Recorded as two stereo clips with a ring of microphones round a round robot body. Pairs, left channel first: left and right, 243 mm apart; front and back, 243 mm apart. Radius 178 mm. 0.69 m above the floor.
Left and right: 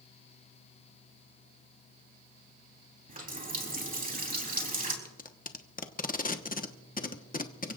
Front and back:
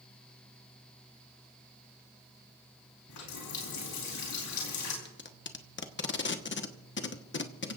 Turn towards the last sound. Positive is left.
turn(degrees=35)